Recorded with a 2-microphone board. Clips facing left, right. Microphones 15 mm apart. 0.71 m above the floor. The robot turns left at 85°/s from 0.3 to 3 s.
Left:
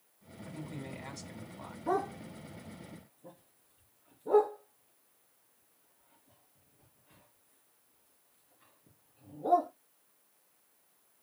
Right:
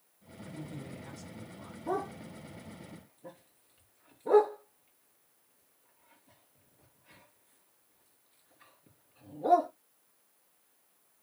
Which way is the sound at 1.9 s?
40° left (ahead or behind).